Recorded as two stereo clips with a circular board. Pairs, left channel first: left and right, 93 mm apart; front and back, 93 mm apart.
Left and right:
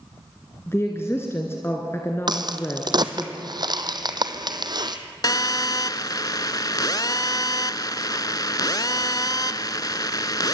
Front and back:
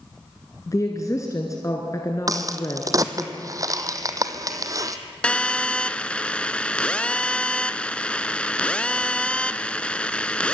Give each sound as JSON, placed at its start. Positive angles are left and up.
{"t": 0.7, "sound": "a woman speaking", "azimuth_deg": 40, "distance_m": 1.8}
{"t": 2.3, "sound": "a crack", "azimuth_deg": -130, "distance_m": 1.2}
{"t": 5.2, "sound": "a phone buzzing", "azimuth_deg": 75, "distance_m": 0.6}